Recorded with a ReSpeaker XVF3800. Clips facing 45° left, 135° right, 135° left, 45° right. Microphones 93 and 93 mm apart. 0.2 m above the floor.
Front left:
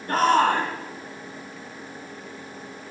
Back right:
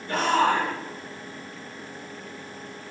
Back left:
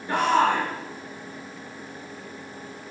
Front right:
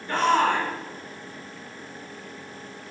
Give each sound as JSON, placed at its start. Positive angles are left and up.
{"t": 0.1, "sound": "a shout", "azimuth_deg": 65, "distance_m": 1.8}